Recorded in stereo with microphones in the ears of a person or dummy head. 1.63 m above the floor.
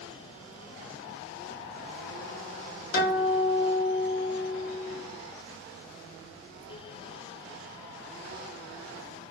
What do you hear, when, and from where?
2.9 s a guitar: 60° left (ahead or behind), 1.0 m